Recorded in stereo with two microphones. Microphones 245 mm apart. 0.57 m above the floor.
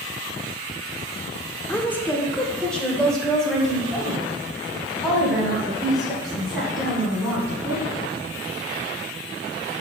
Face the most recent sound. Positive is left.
turn(degrees=0)  # may be behind; listen again after turning